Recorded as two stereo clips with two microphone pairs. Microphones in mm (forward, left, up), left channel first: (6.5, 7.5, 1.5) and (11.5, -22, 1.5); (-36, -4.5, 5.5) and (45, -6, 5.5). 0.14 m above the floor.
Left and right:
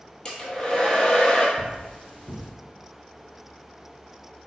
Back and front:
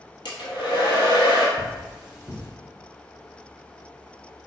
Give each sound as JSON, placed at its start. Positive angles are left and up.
{"t": 0.2, "sound": "a hair dryer", "azimuth_deg": 160, "distance_m": 0.8}
{"t": 1.6, "sound": "cutlery clinking", "azimuth_deg": 80, "distance_m": 1.5}